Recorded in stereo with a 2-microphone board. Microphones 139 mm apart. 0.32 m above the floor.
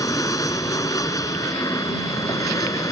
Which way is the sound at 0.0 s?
25° left (ahead or behind).